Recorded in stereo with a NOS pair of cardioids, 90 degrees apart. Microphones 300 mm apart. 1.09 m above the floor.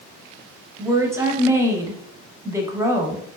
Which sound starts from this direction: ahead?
A woman speaking, at 0.8 s.